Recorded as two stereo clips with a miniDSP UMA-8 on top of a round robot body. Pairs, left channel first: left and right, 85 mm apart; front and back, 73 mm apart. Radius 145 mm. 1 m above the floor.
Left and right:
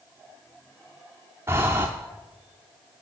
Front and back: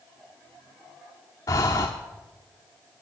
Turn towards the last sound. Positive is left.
turn(degrees=-30)